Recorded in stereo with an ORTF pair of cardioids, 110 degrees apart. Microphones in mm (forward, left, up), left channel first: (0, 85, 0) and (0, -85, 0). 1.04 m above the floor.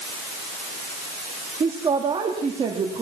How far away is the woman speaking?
About 2.0 m.